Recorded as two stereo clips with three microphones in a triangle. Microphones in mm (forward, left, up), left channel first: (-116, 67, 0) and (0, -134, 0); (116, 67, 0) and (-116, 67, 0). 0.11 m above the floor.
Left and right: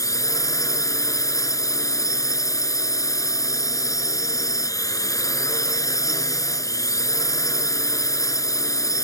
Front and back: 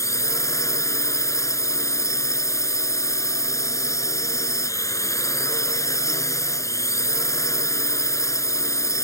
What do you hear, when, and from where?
0.0 s a drone: 60° left